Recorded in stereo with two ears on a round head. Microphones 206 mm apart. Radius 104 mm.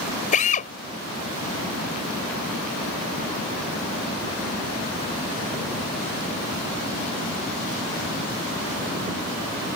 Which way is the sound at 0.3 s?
40° left (ahead or behind).